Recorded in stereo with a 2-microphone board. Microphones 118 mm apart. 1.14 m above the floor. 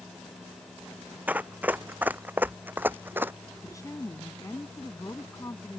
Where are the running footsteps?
15° right (ahead or behind).